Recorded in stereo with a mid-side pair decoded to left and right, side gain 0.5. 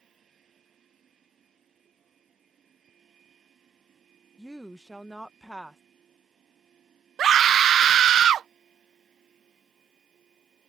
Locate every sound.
0.0 s a machine running: 50° right
4.4 s a woman speaking: 10° right
7.2 s a scream: 55° right